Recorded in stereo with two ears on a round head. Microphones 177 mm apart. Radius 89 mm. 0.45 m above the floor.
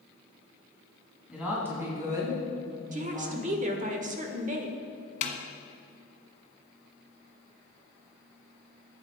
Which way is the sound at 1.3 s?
5° right (ahead or behind).